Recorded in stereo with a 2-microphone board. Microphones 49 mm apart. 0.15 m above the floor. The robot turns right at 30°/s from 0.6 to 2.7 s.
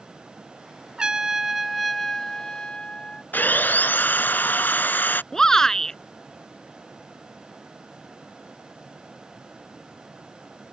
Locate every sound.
1.0 s a trumpet: 25° right; by 3.2 s 25° left
3.3 s sawing: 40° left (ahead or behind)
5.3 s a shout: 10° left (ahead or behind)